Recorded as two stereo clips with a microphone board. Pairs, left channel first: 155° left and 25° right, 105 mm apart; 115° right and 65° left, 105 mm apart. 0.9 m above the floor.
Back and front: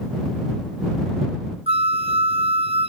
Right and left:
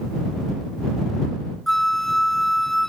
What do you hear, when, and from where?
1.7 s a flute: 25° right